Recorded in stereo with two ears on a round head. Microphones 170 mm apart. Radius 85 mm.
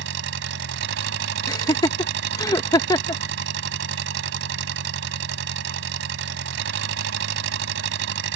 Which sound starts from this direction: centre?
Laughter, at 1.5 s.